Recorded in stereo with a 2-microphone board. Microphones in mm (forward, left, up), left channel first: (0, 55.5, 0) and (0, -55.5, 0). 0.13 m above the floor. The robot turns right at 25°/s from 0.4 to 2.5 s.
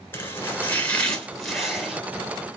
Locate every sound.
0.1 s chopping: 150° left, 2 m; by 2.0 s 170° right, 2 m